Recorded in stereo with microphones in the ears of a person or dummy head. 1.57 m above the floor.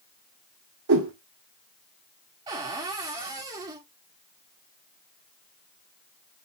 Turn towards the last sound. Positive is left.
turn(degrees=-20)  # may be behind; listen again after turning